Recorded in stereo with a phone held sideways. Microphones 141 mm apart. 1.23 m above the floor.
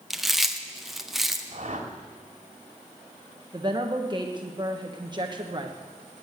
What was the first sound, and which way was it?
Chewing, centre (ahead or behind).